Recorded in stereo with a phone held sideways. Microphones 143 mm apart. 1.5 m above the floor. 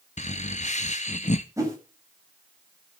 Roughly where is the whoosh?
Right.